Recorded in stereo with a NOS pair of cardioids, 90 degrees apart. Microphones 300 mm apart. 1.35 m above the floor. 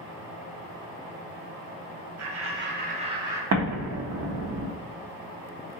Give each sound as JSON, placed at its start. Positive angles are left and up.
{"t": 2.2, "sound": "laughter", "azimuth_deg": -50, "distance_m": 0.9}
{"t": 3.5, "sound": "an explosion", "azimuth_deg": -60, "distance_m": 0.7}